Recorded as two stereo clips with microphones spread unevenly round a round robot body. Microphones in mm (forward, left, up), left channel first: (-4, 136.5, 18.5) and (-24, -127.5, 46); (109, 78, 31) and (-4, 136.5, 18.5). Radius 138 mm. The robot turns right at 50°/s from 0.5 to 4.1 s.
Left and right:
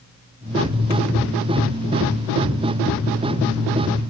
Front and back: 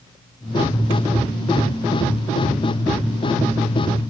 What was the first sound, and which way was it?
Only background noise.